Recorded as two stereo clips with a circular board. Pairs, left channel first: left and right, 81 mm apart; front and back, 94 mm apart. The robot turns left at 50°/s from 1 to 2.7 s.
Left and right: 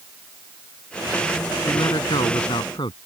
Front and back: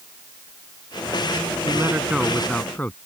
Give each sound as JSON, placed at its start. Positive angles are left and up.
{"t": 1.6, "sound": "a man speaking", "azimuth_deg": 125}